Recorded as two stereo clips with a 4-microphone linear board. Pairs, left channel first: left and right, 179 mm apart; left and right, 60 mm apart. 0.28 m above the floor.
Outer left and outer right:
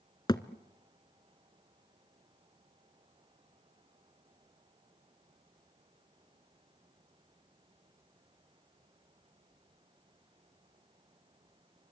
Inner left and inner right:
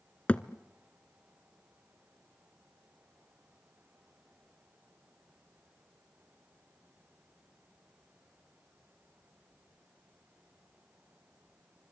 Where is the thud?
25° left (ahead or behind), 0.8 m.